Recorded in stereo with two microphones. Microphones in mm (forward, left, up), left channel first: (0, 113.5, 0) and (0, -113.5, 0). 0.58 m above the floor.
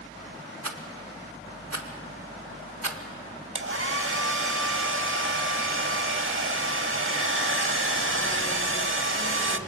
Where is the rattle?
80° right, 1.1 m.